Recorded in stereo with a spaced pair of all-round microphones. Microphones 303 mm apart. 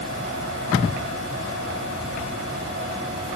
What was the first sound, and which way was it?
Only background noise.